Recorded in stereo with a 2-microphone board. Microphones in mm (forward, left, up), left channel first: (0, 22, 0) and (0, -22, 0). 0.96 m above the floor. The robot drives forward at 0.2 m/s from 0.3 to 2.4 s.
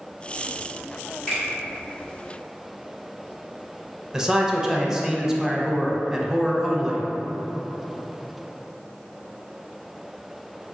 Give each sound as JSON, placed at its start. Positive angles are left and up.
{"t": 1.3, "sound": "a finger snap", "side_deg": 5, "distance_m": 1.7}
{"t": 4.1, "sound": "a man speaking", "side_deg": -15, "distance_m": 0.5}